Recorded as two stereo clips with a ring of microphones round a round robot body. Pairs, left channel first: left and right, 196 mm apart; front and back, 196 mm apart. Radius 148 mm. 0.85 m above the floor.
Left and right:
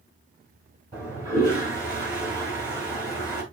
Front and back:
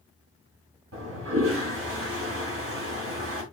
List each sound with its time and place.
0.9 s a toilet flushing: 170° right, 4.5 m